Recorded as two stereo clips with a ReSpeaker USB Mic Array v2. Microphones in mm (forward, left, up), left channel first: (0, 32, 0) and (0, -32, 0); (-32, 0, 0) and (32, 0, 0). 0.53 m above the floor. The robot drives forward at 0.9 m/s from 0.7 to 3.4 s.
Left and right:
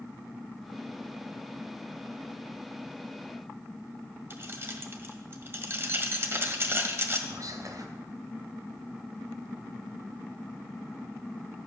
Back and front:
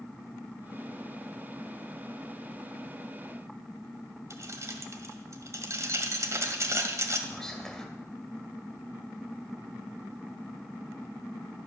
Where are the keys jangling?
40° right, 1.6 m.